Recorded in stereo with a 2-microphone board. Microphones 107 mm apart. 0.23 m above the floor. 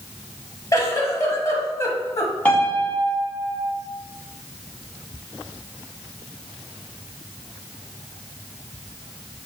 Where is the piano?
15° left (ahead or behind), 1.2 m.